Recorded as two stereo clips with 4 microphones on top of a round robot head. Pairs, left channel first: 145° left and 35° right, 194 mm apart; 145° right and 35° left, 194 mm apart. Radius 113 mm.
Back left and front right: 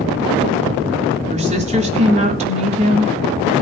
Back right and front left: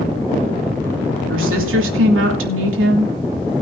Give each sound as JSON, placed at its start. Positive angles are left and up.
{"t": 1.3, "sound": "a woman speaking", "azimuth_deg": 20, "distance_m": 3.5}